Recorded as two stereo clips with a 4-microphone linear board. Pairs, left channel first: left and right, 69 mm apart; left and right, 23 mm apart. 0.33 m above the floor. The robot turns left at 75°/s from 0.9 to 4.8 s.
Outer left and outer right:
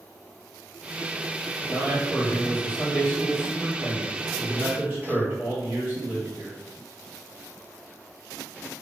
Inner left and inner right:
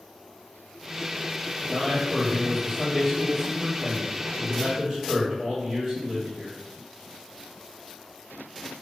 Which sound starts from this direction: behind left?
A man speaking, at 1.7 s.